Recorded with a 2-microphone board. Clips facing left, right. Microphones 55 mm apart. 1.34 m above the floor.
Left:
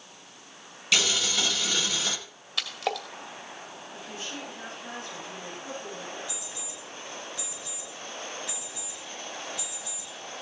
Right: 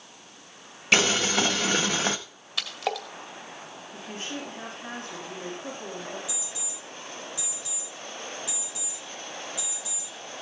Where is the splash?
Centre (ahead or behind), 2 m.